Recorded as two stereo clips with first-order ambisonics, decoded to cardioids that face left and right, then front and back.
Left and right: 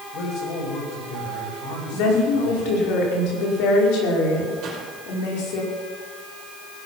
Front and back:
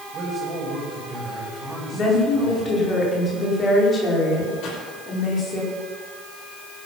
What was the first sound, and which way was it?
A man speaking, 105° left.